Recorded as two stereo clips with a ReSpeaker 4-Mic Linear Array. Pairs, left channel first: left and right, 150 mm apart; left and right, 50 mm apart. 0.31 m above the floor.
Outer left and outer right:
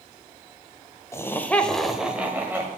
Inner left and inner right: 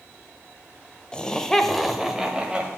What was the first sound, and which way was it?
Laughter, 20° left (ahead or behind).